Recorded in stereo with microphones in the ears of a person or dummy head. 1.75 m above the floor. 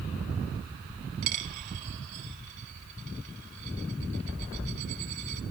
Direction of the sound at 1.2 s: 45° right (ahead or behind).